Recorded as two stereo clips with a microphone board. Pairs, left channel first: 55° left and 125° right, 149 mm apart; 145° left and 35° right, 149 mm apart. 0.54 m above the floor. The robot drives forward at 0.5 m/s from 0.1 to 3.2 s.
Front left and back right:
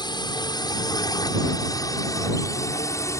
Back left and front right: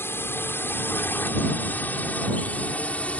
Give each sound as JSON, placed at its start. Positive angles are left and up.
{"t": 0.0, "sound": "a drone", "azimuth_deg": 85}